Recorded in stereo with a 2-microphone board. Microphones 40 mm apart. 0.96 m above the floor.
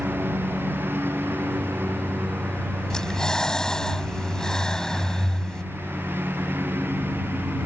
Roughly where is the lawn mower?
Right.